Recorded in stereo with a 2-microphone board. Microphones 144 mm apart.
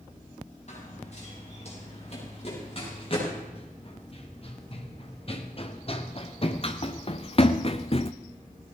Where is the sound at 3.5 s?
40° left (ahead or behind), 3.5 m; by 8.1 s 45° left (ahead or behind), 0.7 m.